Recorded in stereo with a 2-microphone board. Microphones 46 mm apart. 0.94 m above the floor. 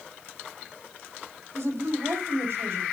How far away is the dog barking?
I don't hear a dog barking.